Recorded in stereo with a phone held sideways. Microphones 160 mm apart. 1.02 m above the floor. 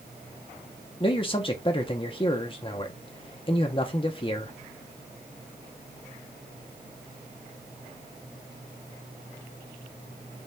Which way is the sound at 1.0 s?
30° left (ahead or behind).